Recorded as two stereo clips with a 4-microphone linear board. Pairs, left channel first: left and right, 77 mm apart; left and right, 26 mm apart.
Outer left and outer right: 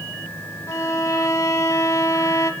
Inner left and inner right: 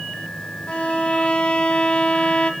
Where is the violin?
45° left (ahead or behind), 0.7 m.